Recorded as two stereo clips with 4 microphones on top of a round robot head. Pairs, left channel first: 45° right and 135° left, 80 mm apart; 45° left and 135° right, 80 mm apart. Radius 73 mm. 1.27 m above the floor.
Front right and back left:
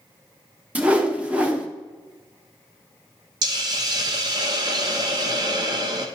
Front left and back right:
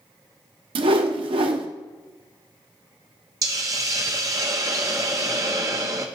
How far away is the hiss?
About 0.7 m.